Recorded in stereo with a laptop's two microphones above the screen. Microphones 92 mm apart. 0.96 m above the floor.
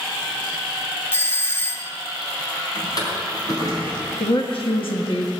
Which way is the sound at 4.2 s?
70° left (ahead or behind).